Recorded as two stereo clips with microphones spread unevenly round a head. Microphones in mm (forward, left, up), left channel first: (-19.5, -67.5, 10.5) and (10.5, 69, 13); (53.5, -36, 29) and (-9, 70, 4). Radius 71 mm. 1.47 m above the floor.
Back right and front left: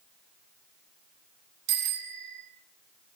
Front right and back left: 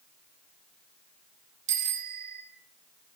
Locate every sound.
1.7 s a bicycle bell: 90° left, 9.5 m